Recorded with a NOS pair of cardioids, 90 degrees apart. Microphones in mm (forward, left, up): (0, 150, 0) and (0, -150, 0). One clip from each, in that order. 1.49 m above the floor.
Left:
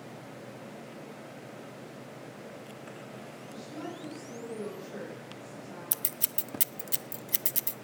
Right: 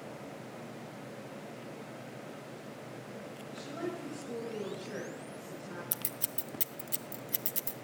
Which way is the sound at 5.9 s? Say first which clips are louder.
Left 3 dB; 20° left.